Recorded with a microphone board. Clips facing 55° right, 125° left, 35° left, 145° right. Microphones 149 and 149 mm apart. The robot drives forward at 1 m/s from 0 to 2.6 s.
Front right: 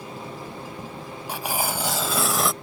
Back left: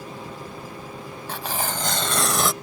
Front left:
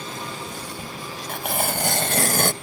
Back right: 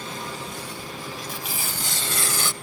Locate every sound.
1.3 s tearing paper: 20° left; by 2.5 s 35° left